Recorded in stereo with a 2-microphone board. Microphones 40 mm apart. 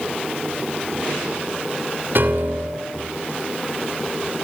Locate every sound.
2.1 s a piano: 60° right (ahead or behind), 3 m